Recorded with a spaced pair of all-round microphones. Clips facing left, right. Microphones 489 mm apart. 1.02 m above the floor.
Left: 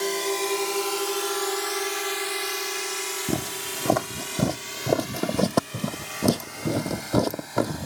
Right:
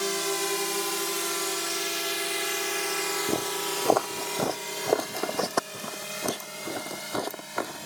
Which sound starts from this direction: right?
A drone, at 0.0 s.